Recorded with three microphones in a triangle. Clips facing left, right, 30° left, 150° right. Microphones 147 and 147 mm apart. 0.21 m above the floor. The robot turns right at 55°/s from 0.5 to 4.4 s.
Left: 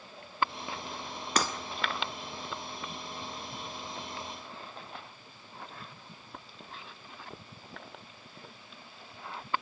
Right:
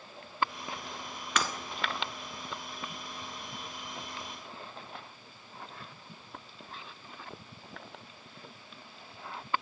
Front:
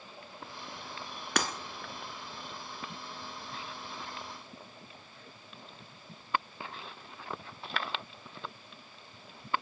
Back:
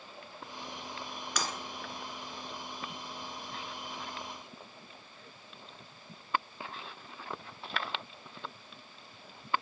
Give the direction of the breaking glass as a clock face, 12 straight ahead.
11 o'clock.